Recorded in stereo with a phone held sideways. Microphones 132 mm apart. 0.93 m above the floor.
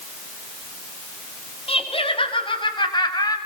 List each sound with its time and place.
1.7 s laughter: 45° left (ahead or behind), 7.5 m; by 3.4 s 30° left (ahead or behind), 6 m